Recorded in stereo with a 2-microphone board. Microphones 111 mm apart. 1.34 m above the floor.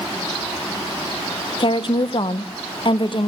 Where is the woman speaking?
50° left (ahead or behind), 0.7 m.